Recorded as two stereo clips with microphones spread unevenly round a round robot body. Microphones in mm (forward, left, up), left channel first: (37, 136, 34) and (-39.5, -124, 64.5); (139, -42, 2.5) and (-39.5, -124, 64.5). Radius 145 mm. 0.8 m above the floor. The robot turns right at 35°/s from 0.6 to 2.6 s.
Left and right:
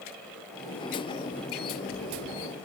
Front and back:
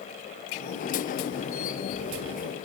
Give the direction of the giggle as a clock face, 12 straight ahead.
No giggle in this recording.